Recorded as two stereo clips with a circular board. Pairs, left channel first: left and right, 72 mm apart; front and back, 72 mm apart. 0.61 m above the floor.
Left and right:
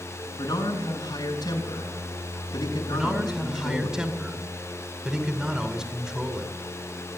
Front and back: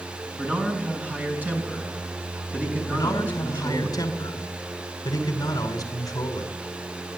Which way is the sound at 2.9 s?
10° right.